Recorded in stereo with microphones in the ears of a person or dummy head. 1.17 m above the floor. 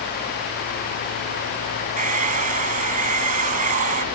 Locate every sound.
2.0 s a hair dryer: 40° right (ahead or behind)